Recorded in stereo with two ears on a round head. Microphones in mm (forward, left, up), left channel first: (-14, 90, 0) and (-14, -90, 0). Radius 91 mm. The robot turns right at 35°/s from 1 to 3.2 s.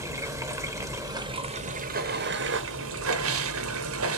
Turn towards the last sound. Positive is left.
turn(degrees=-85)